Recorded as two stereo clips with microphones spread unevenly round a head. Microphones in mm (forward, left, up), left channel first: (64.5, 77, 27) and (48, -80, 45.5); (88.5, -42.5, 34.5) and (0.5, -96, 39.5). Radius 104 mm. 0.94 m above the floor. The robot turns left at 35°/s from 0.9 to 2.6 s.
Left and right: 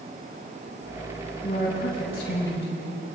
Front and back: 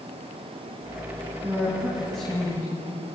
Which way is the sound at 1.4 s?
145° left.